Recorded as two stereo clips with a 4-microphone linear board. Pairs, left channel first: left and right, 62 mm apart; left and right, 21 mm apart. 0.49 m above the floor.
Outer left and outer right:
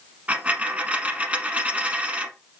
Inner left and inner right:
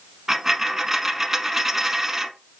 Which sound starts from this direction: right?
A dropped coin, at 0.3 s.